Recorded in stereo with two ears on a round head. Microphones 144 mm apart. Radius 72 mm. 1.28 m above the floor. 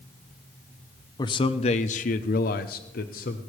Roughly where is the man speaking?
Left.